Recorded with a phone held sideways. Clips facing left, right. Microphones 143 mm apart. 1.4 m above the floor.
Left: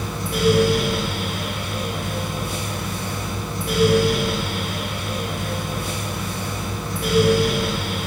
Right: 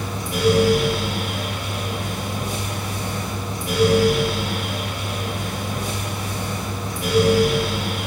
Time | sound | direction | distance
0.0 | a fan | 15° right (ahead or behind) | 3.5 m